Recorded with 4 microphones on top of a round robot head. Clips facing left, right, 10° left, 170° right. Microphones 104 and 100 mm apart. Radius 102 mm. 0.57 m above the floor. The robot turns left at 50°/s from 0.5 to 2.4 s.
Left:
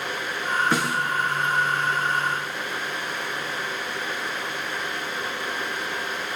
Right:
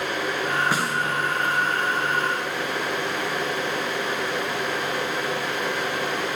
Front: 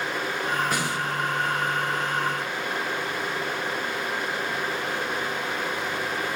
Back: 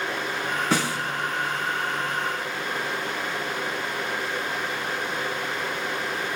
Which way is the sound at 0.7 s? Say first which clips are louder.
Left 1 dB, back 3 dB; 170° right.